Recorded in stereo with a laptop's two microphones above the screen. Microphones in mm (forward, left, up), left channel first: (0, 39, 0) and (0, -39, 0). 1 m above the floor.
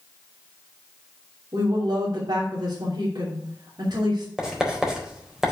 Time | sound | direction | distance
1.5 | a woman speaking | 60° right (ahead or behind) | 3 m
4.4 | writing | 10° right (ahead or behind) | 4 m